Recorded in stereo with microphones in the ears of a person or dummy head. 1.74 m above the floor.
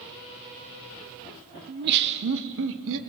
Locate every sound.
1.7 s laughter: 50° right (ahead or behind), 1.0 m; by 3.0 s 75° right (ahead or behind), 1.8 m